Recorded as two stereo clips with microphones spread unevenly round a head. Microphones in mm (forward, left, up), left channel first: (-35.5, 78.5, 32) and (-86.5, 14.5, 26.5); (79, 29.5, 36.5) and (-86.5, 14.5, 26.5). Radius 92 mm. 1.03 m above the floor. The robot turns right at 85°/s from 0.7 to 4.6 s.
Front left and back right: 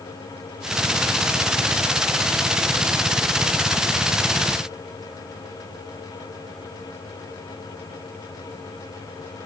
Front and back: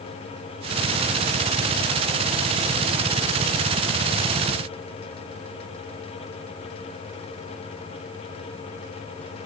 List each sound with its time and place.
Only background noise.